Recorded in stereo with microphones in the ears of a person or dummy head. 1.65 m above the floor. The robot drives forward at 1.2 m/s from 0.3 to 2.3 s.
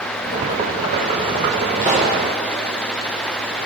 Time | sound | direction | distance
1.8 | a pop | 15° right (ahead or behind) | 0.8 m